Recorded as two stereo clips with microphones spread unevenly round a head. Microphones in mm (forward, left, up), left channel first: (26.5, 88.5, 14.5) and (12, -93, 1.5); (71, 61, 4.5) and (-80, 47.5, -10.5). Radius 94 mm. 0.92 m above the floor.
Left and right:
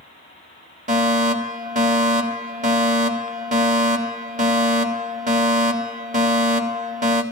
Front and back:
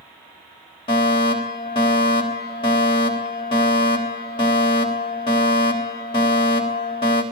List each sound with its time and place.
0.9 s a fire alarm: 60° right, 3 m